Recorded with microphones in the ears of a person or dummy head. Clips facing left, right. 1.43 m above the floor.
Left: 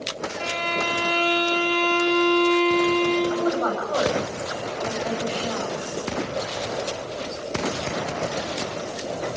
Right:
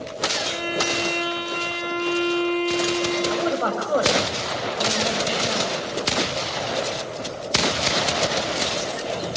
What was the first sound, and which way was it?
A violin, 55° left (ahead or behind).